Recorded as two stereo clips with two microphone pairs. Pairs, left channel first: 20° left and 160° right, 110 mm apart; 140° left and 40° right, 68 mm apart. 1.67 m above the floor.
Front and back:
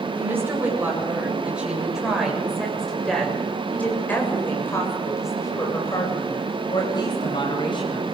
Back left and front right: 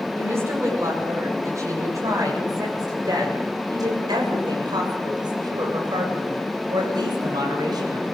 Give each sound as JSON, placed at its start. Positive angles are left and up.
{"t": 0.1, "sound": "a woman speaking", "azimuth_deg": -90, "distance_m": 8.5}